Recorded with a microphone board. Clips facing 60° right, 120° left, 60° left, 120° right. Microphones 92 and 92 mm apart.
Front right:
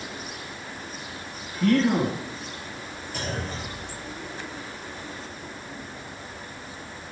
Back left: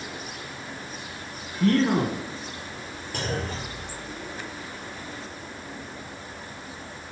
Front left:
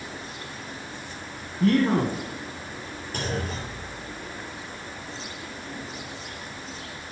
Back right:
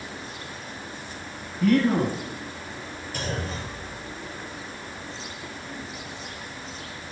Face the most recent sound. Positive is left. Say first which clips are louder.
# back left 2 dB, front left 1 dB
turn(degrees=100)